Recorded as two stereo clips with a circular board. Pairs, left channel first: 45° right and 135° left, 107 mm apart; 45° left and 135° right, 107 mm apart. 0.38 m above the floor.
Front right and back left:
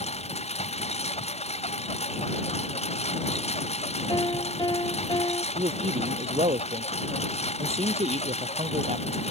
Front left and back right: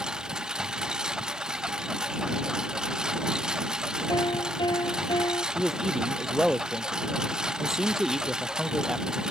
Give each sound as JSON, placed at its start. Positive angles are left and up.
{"t": 0.0, "sound": "a lawn mower", "azimuth_deg": -50}
{"t": 4.1, "sound": "a piano", "azimuth_deg": 0}
{"t": 5.5, "sound": "a man speaking", "azimuth_deg": 135}